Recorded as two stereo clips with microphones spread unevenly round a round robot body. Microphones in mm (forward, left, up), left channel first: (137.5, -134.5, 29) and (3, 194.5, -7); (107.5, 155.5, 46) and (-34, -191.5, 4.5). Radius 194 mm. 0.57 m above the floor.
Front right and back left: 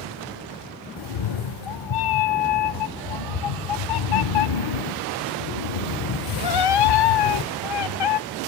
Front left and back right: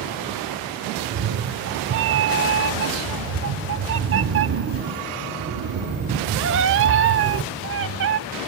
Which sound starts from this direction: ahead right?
A cat meowing, at 1.0 s.